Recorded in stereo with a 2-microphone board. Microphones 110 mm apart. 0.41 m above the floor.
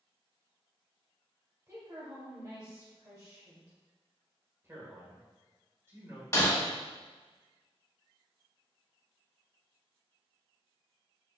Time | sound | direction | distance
1.7 | a woman speaking | 40° right (ahead or behind) | 1.7 m
4.6 | a man speaking | 25° right (ahead or behind) | 1.5 m
6.3 | breaking glass | 30° left (ahead or behind) | 1.3 m